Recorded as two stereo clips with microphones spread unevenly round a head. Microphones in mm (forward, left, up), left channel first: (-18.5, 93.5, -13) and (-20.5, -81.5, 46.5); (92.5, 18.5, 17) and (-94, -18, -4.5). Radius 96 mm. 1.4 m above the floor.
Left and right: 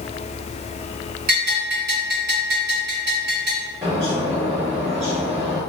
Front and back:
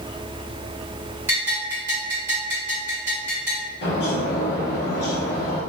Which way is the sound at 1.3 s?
90° right.